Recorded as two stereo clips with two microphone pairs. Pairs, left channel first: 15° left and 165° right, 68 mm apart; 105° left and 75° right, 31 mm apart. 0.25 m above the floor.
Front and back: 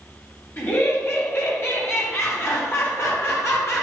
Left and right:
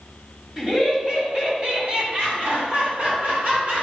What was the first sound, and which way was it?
Laughter, straight ahead.